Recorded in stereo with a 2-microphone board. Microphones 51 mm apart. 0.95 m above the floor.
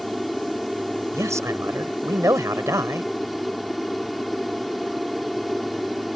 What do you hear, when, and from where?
0.0 s an aircraft: centre (ahead or behind)
1.1 s a man speaking: 85° right